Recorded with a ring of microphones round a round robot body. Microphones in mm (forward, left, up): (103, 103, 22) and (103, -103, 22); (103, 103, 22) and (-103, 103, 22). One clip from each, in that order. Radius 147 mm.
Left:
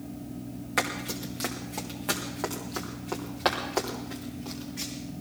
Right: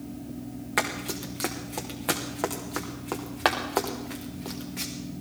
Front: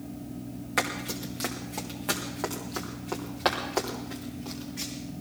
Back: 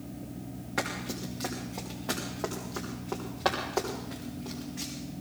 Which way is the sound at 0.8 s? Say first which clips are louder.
Right 1 dB, front 4 dB; 25° right.